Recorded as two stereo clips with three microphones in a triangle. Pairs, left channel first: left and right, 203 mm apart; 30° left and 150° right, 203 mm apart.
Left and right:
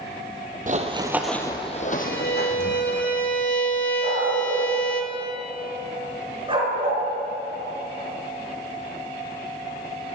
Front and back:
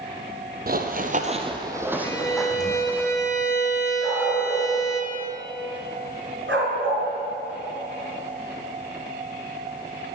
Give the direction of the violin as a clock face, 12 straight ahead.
9 o'clock.